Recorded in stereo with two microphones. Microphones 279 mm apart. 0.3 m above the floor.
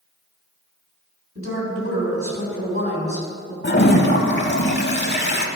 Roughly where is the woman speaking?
Right.